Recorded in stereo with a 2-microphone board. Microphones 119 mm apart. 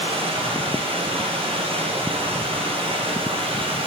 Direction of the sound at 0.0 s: 50° right (ahead or behind).